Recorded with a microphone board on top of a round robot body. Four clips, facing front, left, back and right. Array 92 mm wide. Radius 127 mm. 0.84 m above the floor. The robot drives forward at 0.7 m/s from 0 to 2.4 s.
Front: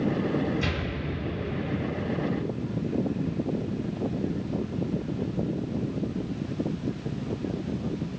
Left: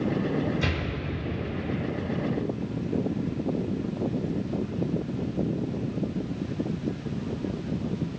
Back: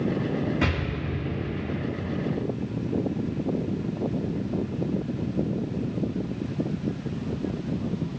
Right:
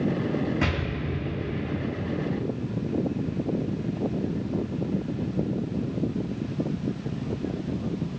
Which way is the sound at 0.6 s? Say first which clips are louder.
Right 2 dB, back 3 dB; 135° right.